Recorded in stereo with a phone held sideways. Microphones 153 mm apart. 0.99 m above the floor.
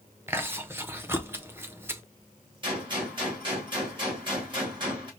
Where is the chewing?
15° right (ahead or behind), 0.6 m.